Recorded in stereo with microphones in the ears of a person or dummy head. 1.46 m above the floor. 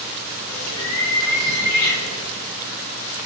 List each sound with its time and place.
0.5 s a bird: 85° left, 6.5 m